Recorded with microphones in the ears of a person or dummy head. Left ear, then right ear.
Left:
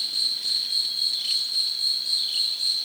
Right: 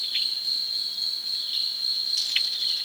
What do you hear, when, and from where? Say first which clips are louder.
0.0 s an insect: left 1 dB; 15° left (ahead or behind), 0.9 m